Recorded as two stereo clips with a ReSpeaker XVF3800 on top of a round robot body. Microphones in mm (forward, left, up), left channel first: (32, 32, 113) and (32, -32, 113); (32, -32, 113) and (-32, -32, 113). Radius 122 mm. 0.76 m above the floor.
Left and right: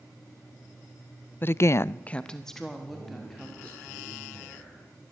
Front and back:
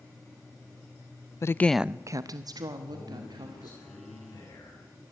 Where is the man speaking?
15° left, 8.5 m.